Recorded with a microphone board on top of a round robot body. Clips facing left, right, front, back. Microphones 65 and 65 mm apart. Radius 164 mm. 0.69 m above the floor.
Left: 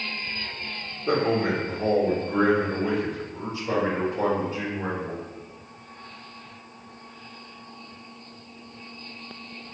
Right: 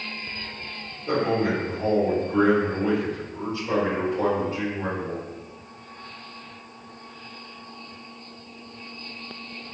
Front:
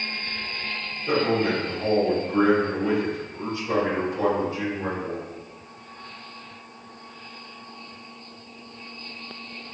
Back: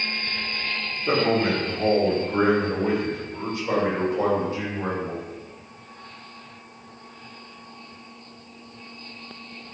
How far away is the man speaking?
About 1.3 m.